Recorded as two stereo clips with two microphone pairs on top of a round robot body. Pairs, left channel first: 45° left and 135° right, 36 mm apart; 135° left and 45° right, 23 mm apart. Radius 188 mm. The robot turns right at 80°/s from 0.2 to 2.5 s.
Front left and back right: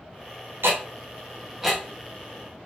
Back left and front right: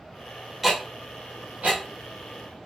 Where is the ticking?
130° right, 0.7 m; by 1.8 s 35° right, 0.7 m.